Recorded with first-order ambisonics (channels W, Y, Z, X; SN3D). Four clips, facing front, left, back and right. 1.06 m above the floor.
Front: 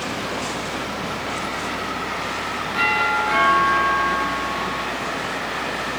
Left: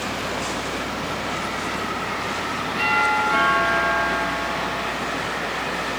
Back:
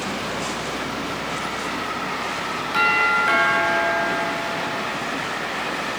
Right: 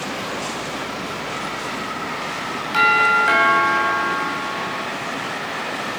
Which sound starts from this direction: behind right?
A doorbell, at 2.7 s.